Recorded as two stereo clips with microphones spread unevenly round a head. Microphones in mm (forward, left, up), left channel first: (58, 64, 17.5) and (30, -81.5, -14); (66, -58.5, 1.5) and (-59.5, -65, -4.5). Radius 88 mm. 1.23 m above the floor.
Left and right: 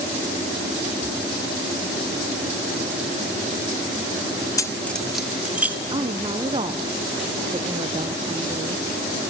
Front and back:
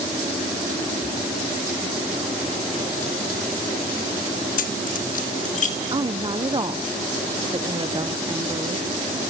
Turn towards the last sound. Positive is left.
turn(degrees=-140)